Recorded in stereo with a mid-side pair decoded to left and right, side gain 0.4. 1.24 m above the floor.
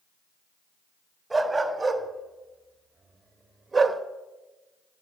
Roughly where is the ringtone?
I don't hear a ringtone.